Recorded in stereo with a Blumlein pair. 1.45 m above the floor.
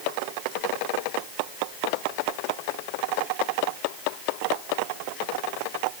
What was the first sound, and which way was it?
Only background noise.